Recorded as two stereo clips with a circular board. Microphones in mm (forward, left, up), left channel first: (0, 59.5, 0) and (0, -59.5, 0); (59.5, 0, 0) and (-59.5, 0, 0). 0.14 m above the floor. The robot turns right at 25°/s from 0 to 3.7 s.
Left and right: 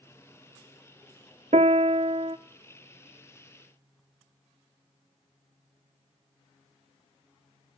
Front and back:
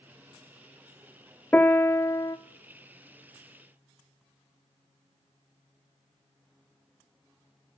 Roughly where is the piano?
Right.